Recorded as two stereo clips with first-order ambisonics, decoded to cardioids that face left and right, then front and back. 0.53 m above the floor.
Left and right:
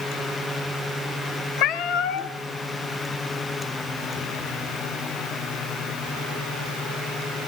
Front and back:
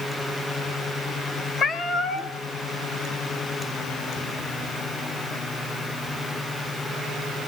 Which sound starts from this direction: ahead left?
A cat meowing, at 1.6 s.